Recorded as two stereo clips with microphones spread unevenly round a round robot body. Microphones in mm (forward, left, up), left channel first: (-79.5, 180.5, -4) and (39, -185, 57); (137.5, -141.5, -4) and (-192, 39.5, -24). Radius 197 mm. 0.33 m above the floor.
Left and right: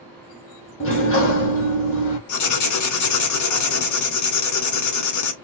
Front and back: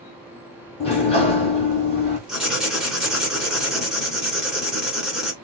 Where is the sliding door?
45° left, 2.0 m.